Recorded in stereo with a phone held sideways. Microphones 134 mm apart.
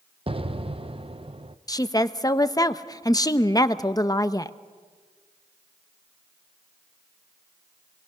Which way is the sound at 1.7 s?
30° left (ahead or behind).